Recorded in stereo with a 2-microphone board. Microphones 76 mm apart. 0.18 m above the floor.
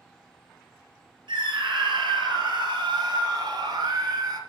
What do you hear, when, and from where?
1.3 s a scream: 70° right (ahead or behind), 3.5 m; by 4.4 s 55° right (ahead or behind), 2.5 m